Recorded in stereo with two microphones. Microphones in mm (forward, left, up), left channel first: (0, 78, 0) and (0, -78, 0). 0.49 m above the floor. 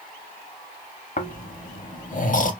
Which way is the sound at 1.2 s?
55° left (ahead or behind).